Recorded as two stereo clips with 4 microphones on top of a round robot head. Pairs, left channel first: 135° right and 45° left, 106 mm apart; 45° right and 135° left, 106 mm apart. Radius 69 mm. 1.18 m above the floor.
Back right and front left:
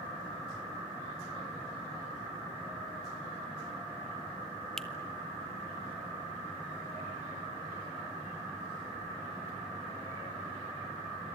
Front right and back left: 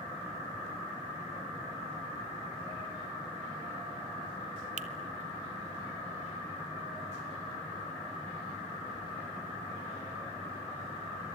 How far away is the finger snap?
About 1.5 m.